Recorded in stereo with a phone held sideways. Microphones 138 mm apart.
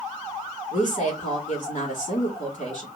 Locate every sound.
0.7 s a woman speaking: 60° left (ahead or behind), 3 m